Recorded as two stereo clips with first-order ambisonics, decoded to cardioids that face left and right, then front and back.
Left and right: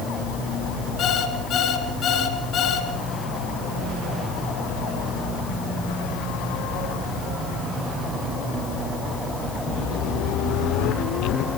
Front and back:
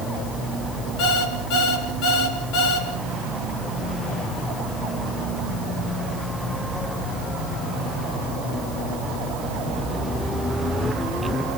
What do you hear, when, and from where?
1.0 s an alarm clock: 30° left, 4.5 m